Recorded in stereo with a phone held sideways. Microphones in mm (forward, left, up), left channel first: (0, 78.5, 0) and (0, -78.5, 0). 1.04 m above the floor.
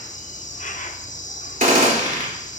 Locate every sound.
0.0 s an insect: 50° left (ahead or behind), 0.8 m
1.6 s a gunshot: 55° right (ahead or behind), 3 m